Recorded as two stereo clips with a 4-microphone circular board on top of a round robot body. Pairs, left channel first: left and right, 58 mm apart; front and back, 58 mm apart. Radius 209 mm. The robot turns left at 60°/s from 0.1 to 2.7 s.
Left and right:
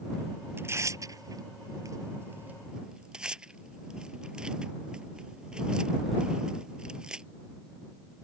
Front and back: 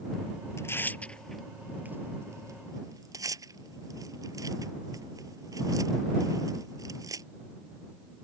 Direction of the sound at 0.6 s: 40° right.